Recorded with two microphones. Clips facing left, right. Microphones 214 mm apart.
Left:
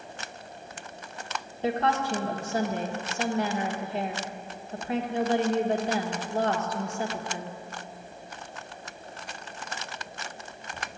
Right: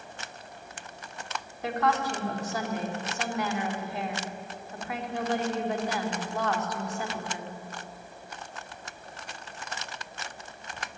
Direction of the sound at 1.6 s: 25° left (ahead or behind).